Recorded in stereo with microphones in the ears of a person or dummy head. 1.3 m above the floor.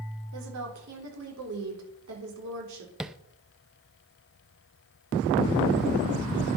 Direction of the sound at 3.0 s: 5° right (ahead or behind).